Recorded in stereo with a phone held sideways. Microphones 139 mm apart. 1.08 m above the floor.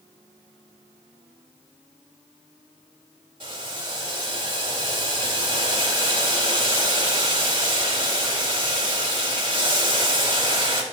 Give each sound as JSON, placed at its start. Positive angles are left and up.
{"t": 3.4, "sound": "boiling", "side_deg": -40, "distance_m": 2.5}